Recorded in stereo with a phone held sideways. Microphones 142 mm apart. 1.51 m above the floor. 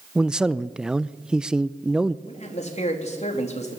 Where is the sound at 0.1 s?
5° right (ahead or behind), 0.5 m.